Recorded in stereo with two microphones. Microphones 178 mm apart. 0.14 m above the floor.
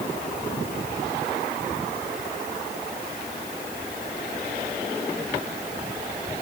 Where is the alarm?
I don't hear an alarm.